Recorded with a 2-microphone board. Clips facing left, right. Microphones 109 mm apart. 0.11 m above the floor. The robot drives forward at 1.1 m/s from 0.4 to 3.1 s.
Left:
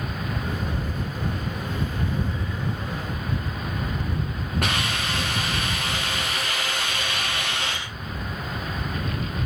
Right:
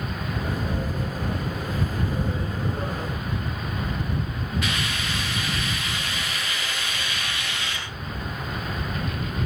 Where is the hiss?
55° left (ahead or behind), 5 m.